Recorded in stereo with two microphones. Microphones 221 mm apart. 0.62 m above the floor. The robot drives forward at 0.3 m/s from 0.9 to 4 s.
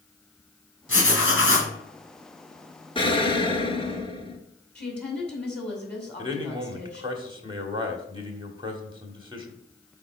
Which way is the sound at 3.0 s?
20° left (ahead or behind).